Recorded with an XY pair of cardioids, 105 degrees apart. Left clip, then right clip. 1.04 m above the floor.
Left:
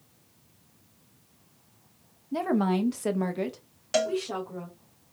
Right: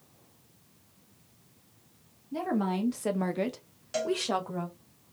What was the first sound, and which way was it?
A woman speaking, 40° left.